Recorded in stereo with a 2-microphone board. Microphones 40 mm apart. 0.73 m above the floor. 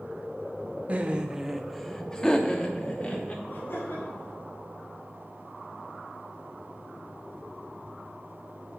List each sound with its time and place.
0.9 s laughter: 35° right (ahead or behind), 0.8 m; by 3.4 s 35° left (ahead or behind), 1.9 m
3.5 s laughter: 70° left (ahead or behind), 3 m